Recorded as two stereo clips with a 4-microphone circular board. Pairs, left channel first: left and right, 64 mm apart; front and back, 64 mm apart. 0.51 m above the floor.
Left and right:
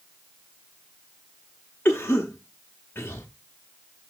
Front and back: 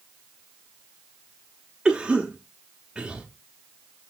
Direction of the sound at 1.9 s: 115° left.